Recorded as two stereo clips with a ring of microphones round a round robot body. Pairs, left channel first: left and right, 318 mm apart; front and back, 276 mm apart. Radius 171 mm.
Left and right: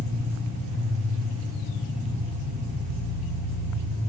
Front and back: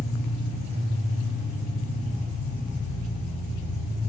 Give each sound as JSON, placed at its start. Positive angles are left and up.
{"t": 0.0, "sound": "an engine running", "azimuth_deg": -60, "distance_m": 1.6}